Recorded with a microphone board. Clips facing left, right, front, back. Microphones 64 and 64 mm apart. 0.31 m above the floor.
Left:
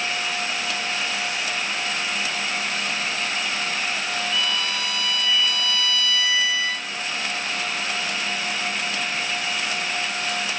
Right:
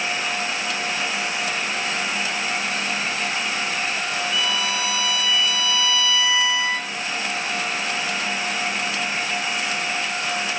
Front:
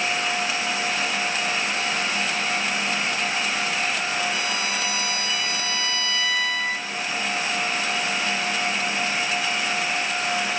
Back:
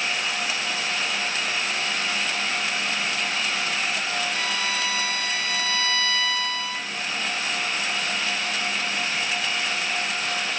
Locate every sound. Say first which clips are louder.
4.3 s a violin: right 2 dB, front 1 dB; straight ahead, 4 m